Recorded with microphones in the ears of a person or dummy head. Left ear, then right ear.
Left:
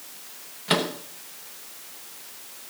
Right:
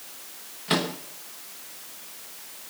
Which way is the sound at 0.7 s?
15° left (ahead or behind).